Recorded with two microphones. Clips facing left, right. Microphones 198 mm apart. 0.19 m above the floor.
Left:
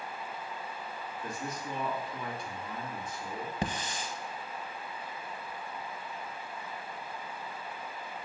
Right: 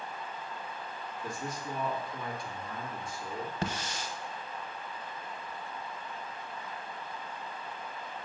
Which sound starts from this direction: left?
A man speaking, at 1.2 s.